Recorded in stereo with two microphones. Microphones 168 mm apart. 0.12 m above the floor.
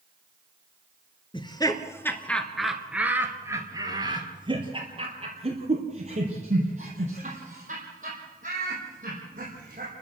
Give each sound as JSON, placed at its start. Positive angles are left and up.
{"t": 1.3, "sound": "laughter", "side_deg": 30, "distance_m": 1.9}